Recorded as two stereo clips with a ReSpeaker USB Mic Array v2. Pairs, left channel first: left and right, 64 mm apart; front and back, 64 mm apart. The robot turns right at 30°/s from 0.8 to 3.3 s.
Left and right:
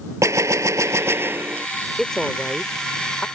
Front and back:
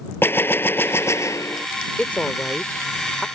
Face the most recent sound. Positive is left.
turn(degrees=55)